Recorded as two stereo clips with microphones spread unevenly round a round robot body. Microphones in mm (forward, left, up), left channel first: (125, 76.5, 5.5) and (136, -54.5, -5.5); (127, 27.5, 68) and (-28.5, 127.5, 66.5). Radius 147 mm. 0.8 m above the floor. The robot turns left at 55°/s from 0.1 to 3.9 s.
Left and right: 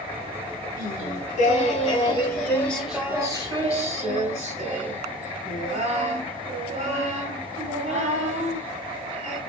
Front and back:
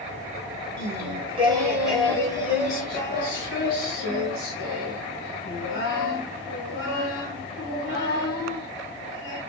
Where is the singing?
120° left, 1.3 m; by 9.4 s 50° right, 1.3 m.